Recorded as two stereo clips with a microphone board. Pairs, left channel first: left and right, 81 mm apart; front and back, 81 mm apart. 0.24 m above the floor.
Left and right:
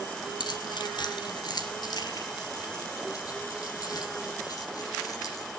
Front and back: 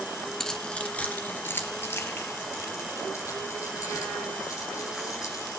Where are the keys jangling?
85° left, 1.7 m; by 5.5 s 50° left, 7.5 m.